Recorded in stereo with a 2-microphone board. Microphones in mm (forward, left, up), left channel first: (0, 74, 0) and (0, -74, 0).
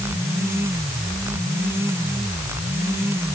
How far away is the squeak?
I don't hear a squeak.